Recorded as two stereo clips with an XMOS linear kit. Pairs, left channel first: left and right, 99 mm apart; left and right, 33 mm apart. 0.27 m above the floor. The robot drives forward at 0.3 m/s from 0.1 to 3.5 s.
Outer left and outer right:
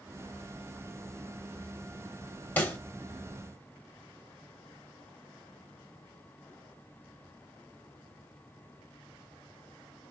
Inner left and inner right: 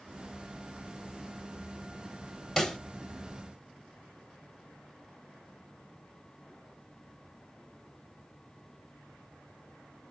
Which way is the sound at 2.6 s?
15° left (ahead or behind).